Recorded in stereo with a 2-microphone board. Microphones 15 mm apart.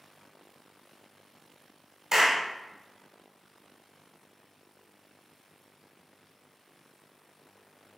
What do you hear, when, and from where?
2.1 s a clap: 30° right (ahead or behind), 1.1 m